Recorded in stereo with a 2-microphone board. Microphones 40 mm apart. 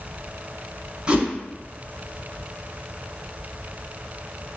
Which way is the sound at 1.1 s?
25° right (ahead or behind).